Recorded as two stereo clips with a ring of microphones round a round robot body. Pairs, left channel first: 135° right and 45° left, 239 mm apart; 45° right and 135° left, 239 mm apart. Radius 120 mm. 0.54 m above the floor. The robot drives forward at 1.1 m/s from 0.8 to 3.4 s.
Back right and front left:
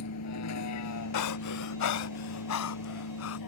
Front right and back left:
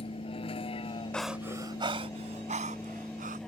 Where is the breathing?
130° right; by 3.4 s 170° right.